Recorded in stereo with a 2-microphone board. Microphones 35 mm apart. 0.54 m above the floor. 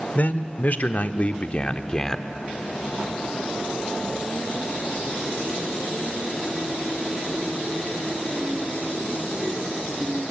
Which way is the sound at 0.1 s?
55° left (ahead or behind).